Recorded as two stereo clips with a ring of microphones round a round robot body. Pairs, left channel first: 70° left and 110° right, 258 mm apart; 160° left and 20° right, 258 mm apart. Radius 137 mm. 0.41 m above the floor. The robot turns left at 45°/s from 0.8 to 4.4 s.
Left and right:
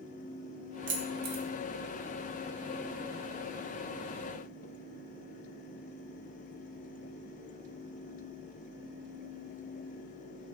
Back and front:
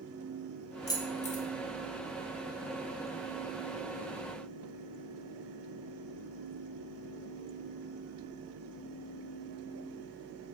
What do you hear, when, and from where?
0.9 s keys jangling: 130° right, 0.6 m; by 1.4 s 155° right, 0.6 m